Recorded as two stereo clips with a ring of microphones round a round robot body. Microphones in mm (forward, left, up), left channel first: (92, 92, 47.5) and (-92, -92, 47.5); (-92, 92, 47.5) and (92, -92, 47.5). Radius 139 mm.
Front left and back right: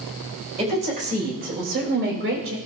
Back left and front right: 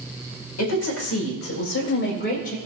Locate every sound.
0.6 s a woman speaking: 160° left, 4 m; by 2.6 s 170° right, 3 m